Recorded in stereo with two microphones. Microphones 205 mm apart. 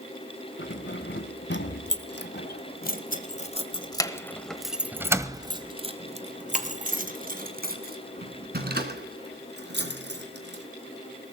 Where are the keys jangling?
70° left (ahead or behind), 2.5 m; by 10.6 s 60° right (ahead or behind), 4 m.